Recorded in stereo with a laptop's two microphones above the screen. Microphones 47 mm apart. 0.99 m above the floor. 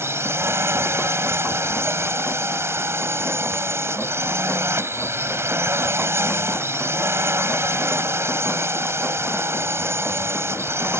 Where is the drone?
65° right (ahead or behind).